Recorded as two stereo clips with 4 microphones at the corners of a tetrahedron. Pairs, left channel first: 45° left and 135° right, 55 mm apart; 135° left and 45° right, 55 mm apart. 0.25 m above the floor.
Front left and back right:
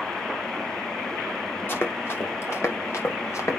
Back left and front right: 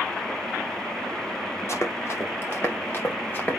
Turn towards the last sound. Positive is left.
turn(degrees=75)